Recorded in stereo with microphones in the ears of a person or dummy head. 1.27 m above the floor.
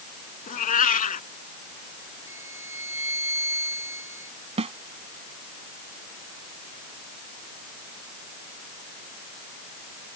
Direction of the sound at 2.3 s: 15° right (ahead or behind).